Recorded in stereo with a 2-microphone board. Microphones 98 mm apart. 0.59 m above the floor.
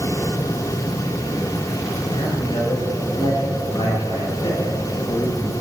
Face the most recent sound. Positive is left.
turn(degrees=40)  # may be behind; listen again after turning